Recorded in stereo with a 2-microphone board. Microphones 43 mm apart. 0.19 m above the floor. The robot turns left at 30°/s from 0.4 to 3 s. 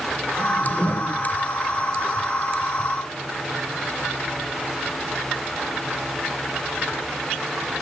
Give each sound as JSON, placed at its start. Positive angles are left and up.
{"t": 0.4, "sound": "a whoosh", "side_deg": -20, "distance_m": 2.5}